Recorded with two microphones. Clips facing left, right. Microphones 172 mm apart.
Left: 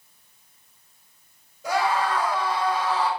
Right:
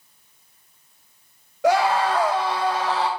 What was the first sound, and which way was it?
A scream, 80° right.